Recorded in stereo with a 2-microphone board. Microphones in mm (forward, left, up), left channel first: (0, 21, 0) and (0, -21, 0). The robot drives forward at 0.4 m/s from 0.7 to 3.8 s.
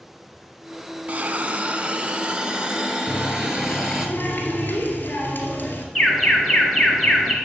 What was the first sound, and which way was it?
A hiss, 40° right (ahead or behind).